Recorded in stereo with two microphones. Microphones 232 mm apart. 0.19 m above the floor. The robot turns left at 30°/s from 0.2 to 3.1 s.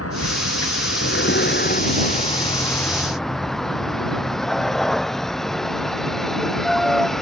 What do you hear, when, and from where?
0.0 s a vehicle: 90° left; by 7.2 s straight ahead